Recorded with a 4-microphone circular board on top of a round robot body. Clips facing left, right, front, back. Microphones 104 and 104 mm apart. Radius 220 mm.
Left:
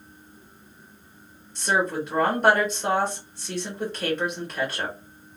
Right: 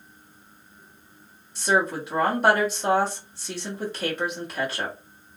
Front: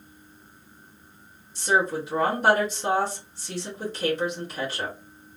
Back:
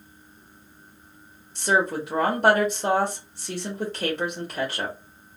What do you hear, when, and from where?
1.6 s a woman speaking: 175° right, 1.4 m